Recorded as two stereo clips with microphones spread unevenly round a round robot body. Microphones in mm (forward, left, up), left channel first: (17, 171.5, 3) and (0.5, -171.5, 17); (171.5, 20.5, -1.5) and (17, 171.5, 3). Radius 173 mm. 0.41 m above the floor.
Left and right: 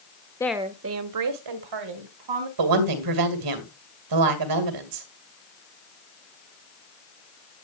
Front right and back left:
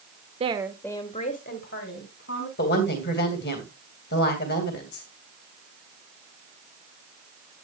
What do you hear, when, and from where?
0.4 s a woman speaking: 150° left, 0.8 m; by 2.5 s 95° right, 3 m
2.6 s a woman speaking: 90° right, 2.5 m